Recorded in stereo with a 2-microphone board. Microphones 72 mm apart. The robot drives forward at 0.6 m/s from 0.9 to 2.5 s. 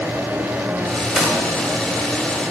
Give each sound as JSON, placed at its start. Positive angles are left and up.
{"t": 1.1, "sound": "a gunshot", "side_deg": -10, "distance_m": 1.8}